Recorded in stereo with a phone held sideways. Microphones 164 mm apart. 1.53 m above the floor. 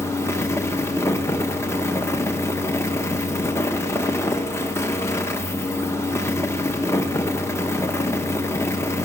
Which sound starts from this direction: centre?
A fan, at 0.0 s.